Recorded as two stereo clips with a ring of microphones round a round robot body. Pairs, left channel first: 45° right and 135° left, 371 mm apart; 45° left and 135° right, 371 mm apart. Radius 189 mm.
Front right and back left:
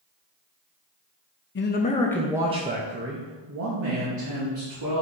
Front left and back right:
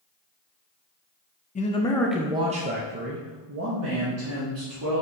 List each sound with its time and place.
1.6 s a man speaking: 10° right, 0.6 m; by 5.0 s 175° left, 1.6 m